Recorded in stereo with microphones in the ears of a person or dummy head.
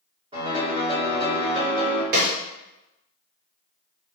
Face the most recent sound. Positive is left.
turn(degrees=-55)  # may be behind; listen again after turning